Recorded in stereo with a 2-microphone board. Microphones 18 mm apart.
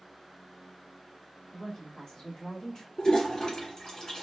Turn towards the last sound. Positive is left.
turn(degrees=35)  # may be behind; listen again after turning